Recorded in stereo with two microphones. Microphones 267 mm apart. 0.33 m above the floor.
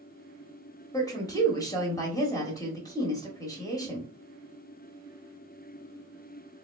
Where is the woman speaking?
15° left (ahead or behind), 1.3 m.